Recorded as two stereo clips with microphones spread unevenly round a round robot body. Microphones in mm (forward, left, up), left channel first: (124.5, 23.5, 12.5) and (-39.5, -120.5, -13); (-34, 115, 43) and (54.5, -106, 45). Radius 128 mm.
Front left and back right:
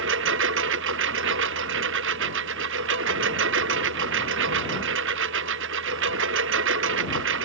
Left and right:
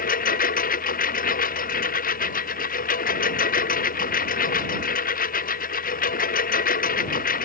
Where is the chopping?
I don't hear chopping.